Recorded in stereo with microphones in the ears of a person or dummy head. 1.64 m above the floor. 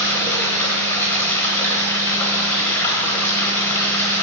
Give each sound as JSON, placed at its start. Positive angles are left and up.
{"t": 0.0, "sound": "running water", "side_deg": 15, "distance_m": 1.1}